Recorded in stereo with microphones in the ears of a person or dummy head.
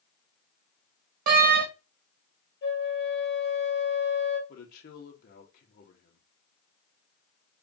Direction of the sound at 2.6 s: 55° left (ahead or behind).